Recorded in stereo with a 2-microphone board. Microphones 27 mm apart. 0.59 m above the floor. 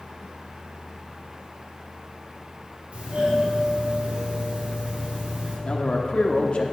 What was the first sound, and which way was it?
A doorbell, 55° right (ahead or behind).